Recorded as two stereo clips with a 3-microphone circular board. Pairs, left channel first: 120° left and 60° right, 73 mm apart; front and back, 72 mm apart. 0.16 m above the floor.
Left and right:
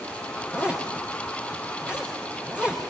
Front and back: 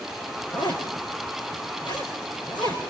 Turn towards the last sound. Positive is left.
turn(degrees=15)